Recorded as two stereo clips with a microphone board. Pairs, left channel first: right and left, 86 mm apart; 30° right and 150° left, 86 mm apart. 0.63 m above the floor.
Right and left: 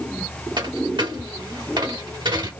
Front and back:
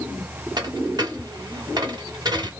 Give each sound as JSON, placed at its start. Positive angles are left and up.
{"t": 0.6, "sound": "a dropped coin", "azimuth_deg": 115, "distance_m": 1.4}